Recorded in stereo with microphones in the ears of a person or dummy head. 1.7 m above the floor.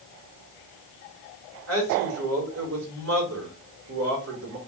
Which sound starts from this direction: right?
A man speaking, at 1.7 s.